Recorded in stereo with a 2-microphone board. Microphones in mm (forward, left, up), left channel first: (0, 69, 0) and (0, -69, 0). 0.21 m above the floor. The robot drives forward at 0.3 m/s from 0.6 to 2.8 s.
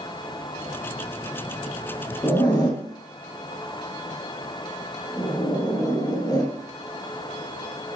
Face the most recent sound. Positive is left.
turn(degrees=30)  # may be behind; listen again after turning